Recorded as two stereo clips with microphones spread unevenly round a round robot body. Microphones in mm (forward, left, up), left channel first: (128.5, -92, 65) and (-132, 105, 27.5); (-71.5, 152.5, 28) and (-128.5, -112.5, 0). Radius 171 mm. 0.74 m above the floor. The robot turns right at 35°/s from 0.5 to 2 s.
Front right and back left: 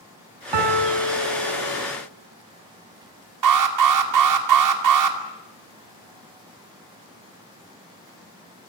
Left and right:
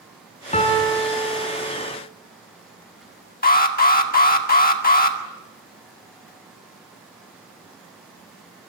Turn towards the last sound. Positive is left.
turn(degrees=135)